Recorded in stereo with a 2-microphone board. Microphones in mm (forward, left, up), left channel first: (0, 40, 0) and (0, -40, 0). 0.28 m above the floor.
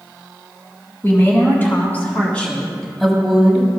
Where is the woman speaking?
30° left (ahead or behind), 2.5 m; by 3.7 s 20° right (ahead or behind), 1.4 m.